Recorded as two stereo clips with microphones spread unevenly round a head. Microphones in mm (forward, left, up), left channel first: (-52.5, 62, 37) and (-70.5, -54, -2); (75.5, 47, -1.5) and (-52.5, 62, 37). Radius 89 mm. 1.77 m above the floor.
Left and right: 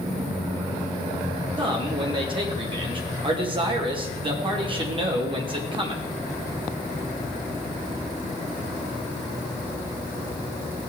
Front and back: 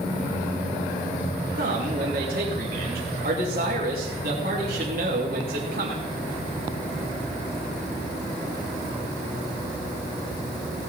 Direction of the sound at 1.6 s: 145° right.